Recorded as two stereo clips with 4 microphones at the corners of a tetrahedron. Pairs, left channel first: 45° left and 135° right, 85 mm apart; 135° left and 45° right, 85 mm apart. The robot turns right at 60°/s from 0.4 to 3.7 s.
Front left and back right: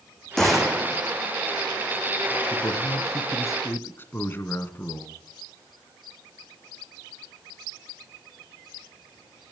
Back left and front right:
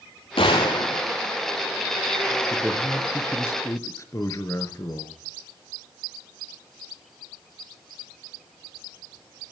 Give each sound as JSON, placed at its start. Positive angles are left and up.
{"t": 0.4, "sound": "a gunshot", "azimuth_deg": 130, "distance_m": 3.5}
{"t": 2.5, "sound": "a man speaking", "azimuth_deg": 25, "distance_m": 2.5}